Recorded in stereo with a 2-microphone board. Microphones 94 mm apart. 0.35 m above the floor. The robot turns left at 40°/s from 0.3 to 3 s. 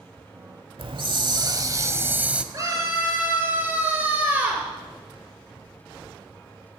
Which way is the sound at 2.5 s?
40° right (ahead or behind).